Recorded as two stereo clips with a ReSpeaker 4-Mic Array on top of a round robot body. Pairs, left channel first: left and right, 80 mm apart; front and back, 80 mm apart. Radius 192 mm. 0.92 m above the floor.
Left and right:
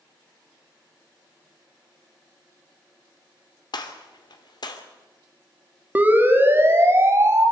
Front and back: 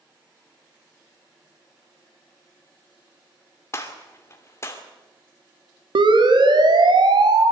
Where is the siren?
160° right, 2 m; by 7.5 s 150° right, 4 m.